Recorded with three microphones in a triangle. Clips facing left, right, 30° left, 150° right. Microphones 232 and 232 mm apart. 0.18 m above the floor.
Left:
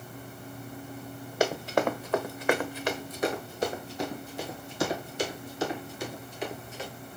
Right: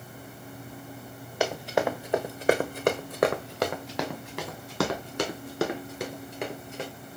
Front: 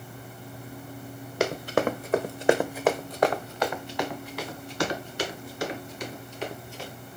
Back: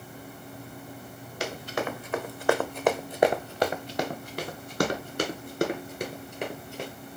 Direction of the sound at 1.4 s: 5° left.